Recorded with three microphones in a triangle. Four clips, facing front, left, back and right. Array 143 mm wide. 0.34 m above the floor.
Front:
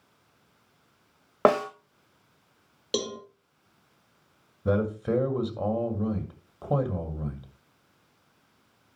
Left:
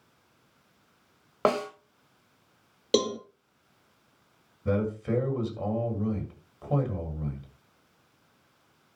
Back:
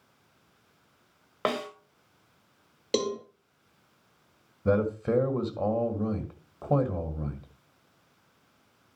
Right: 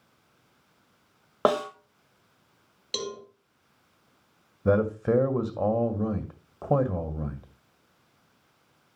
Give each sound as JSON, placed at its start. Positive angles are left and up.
{"t": 1.4, "sound": "a snare drum", "azimuth_deg": -15, "distance_m": 1.4}
{"t": 2.9, "sound": "a cowbell", "azimuth_deg": 105, "distance_m": 2.0}
{"t": 4.7, "sound": "a man speaking", "azimuth_deg": -100, "distance_m": 1.8}